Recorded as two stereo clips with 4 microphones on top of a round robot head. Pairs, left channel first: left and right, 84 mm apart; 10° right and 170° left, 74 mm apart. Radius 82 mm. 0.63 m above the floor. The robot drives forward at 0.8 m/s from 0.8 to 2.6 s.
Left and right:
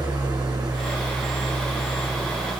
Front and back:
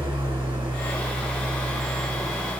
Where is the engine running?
120° right, 6.5 m; by 2.6 s 130° right, 7.5 m.